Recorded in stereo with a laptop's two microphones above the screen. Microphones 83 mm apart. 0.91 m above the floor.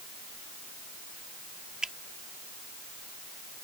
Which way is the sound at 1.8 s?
10° right (ahead or behind).